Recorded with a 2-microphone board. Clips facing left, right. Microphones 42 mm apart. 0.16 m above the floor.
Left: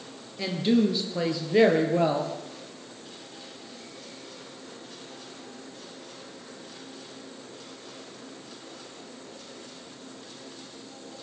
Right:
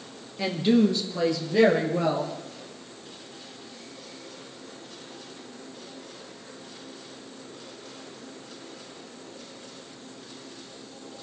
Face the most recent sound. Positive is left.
turn(degrees=35)  # may be behind; listen again after turning